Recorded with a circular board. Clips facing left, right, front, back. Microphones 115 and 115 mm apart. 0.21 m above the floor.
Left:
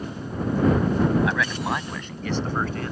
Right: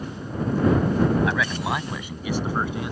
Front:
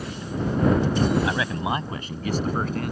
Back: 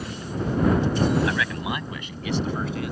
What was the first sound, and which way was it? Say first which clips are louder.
A man speaking: even, front 1 dB; straight ahead.